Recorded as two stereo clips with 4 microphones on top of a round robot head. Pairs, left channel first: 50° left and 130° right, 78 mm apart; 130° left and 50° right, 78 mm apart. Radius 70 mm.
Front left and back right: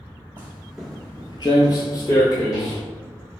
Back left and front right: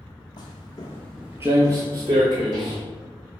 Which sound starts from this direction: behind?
Footsteps, at 0.4 s.